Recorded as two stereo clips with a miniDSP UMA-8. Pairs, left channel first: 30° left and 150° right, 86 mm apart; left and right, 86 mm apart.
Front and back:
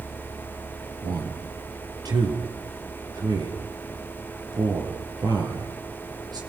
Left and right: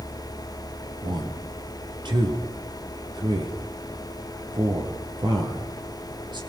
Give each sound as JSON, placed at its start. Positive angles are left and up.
{"t": 1.0, "sound": "a man speaking", "azimuth_deg": -115, "distance_m": 5.0}